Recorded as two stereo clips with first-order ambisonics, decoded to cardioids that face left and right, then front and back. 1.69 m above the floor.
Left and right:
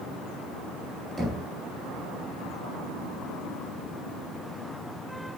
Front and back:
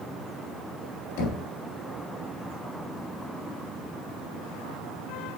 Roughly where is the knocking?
Ahead.